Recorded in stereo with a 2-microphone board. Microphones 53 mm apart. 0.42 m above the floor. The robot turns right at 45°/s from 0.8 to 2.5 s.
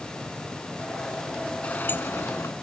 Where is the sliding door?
30° left; by 2.5 s 70° left.